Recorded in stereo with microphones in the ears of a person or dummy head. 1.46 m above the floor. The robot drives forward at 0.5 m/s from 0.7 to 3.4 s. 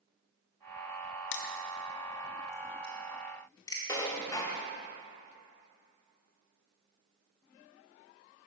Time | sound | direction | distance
1.3 | crushing | 60° left (ahead or behind) | 0.6 m
3.9 | dishes clattering | 25° left (ahead or behind) | 0.7 m